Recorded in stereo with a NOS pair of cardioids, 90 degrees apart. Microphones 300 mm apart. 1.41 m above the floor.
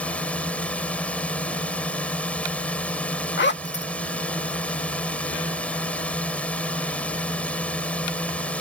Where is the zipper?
35° left.